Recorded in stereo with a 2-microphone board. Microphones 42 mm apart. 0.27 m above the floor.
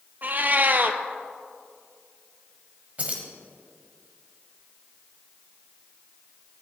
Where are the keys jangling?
35° right (ahead or behind), 1.1 m.